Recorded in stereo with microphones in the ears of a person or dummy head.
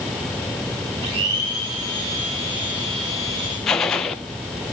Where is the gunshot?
Centre (ahead or behind), 0.6 m.